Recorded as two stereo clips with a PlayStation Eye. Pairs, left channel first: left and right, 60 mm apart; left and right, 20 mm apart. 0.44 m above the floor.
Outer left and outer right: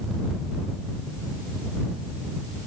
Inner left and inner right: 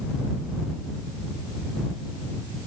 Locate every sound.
Only background noise.